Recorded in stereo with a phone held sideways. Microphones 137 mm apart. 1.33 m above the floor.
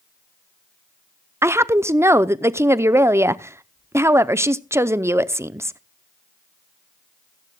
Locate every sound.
1.4 s a woman speaking: 20° right (ahead or behind), 0.6 m